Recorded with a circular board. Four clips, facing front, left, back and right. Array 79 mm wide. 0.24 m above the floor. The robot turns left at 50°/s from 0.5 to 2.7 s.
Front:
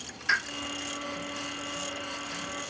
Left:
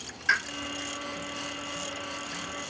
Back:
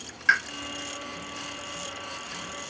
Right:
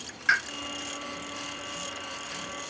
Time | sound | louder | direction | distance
0.3 | a pop | right 1 dB, back 5 dB | 155° right | 2.5 m